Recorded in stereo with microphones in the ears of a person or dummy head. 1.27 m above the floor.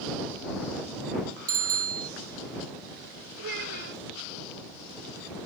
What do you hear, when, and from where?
1.5 s a bicycle bell: 50° right (ahead or behind)
3.4 s a child speaking: 60° right (ahead or behind)